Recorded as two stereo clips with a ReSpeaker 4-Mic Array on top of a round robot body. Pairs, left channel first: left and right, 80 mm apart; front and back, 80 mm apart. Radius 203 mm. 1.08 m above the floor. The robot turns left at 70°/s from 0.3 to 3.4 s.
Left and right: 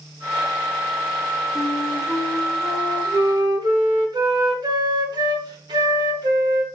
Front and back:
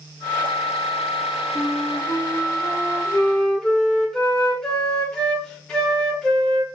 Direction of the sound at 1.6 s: 50° left.